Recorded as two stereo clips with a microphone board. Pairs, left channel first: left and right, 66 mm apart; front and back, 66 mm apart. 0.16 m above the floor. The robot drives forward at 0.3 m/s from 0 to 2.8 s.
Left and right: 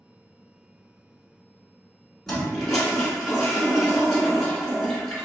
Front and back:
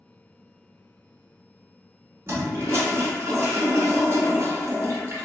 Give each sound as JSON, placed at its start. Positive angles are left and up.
{"t": 2.3, "sound": "a toilet flushing", "azimuth_deg": 170, "distance_m": 0.9}